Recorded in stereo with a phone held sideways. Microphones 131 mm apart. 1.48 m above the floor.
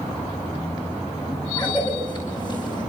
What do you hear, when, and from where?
1.6 s a cough: 30° left (ahead or behind), 7.5 m